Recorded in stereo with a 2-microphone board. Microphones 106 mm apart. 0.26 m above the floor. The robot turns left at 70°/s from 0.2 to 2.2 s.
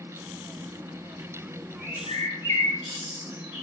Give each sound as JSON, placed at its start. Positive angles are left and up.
{"t": 1.8, "sound": "a bird", "side_deg": 70, "distance_m": 2.0}